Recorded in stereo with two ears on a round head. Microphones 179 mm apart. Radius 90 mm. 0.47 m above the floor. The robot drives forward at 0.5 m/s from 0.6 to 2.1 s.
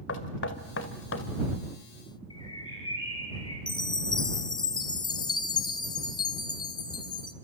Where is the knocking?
60° left (ahead or behind), 2.0 m.